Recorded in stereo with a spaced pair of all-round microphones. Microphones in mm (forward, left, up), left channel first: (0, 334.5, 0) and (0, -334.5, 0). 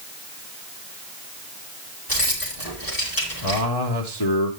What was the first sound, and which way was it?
Keys jangling, 30° left (ahead or behind).